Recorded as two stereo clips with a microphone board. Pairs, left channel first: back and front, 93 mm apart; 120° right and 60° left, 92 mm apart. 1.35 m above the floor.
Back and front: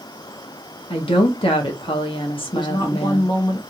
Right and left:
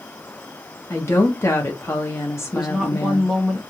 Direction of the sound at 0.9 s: Straight behind.